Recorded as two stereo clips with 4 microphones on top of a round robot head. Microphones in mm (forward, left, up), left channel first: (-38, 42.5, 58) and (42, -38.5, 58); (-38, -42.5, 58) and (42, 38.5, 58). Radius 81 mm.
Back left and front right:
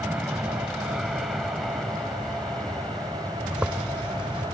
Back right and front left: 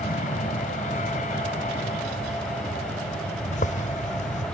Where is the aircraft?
125° right; by 4.5 s 150° right.